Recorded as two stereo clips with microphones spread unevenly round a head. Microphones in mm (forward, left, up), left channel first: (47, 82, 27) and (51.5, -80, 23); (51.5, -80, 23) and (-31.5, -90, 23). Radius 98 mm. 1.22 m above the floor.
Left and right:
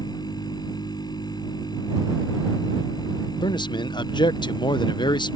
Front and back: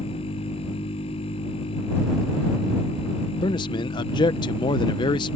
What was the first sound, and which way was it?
A machine running, 25° left.